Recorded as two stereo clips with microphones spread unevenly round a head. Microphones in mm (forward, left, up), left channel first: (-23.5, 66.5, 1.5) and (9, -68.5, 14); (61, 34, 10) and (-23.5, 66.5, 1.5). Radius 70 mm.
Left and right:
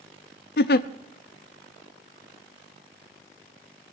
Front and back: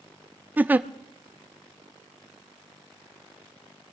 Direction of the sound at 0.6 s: 85° left.